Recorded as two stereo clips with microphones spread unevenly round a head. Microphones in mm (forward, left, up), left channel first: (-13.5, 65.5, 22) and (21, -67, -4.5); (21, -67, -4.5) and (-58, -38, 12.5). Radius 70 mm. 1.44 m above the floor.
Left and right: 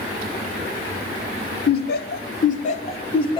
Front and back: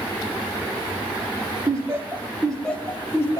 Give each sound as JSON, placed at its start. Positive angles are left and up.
{"t": 1.7, "sound": "laughter", "azimuth_deg": 90, "distance_m": 1.5}